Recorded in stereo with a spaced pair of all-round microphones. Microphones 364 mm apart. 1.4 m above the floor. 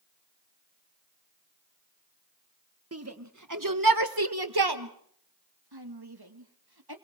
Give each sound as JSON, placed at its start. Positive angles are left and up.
{"t": 2.9, "sound": "a shout", "side_deg": -40, "distance_m": 1.5}